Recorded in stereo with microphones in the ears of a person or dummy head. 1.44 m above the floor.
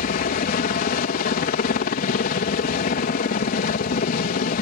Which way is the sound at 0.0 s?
45° left (ahead or behind).